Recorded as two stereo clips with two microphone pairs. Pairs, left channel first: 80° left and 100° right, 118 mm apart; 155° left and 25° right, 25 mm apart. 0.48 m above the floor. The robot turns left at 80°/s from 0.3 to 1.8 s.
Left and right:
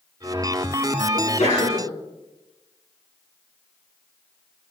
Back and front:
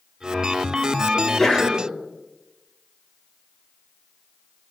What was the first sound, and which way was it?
A sneeze, 90° left.